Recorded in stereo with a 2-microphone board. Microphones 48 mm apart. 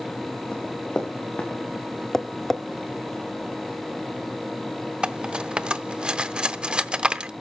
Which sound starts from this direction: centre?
Tapping, at 2.1 s.